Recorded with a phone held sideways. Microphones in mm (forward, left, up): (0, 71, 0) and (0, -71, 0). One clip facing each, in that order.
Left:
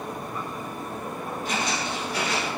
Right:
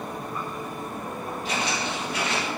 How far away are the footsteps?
About 2.0 m.